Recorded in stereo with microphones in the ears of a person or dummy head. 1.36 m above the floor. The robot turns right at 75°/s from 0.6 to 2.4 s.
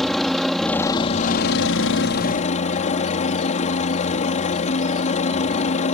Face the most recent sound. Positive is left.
turn(degrees=135)